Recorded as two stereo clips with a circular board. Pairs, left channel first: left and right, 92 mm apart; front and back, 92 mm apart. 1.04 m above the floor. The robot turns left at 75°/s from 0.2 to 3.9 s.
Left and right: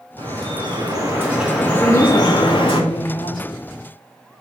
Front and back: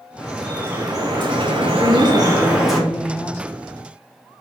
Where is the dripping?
80° right, 1.8 m; by 2.8 s 85° left, 1.8 m.